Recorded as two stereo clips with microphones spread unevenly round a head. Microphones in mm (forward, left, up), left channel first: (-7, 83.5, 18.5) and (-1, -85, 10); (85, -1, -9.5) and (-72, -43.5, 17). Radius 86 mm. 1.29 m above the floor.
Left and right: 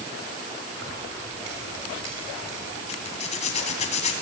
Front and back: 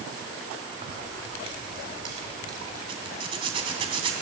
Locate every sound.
0.7 s keys jangling: 115° right, 4.5 m; by 2.8 s 100° right, 4.5 m
2.9 s a zipper: 140° left, 2.5 m